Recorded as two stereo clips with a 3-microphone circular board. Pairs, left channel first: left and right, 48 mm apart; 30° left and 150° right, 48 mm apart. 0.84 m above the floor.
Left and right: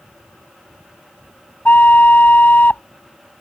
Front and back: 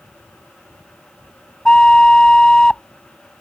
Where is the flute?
90° left.